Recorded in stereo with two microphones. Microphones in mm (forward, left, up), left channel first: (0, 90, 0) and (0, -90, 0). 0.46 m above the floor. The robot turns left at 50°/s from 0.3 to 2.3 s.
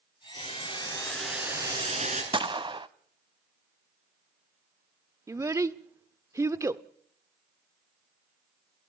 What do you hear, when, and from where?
0.4 s boiling: 45° left, 4 m; by 2.2 s 50° right, 4 m
2.3 s a gunshot: 30° right (ahead or behind), 0.6 m
5.3 s a child speaking: 15° right (ahead or behind), 0.6 m